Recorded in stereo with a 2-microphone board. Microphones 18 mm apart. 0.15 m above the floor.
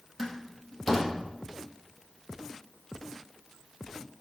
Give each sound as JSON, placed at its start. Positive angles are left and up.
{"t": 0.2, "sound": "a door slam", "side_deg": 10, "distance_m": 4.0}